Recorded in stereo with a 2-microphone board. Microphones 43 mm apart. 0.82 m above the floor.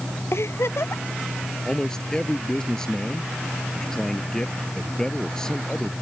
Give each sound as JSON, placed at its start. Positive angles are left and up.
{"t": 0.3, "sound": "a giggle", "side_deg": 70}
{"t": 1.6, "sound": "a man speaking", "side_deg": 15}